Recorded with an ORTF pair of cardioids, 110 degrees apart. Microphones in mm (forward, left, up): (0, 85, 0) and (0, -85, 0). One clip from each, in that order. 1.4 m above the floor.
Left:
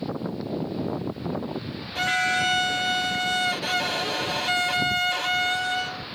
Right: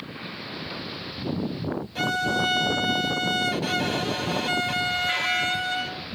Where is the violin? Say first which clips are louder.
Left 2 dB; 10° left.